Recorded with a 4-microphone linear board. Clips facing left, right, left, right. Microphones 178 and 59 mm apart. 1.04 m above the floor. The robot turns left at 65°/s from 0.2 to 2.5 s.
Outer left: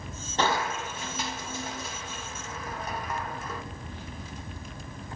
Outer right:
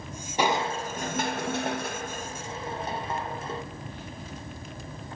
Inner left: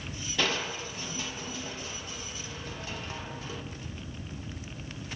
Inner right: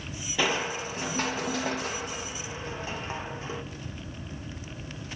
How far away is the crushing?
About 1.4 m.